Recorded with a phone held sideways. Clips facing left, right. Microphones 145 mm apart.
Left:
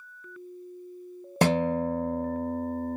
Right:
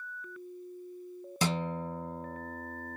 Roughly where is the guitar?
Left.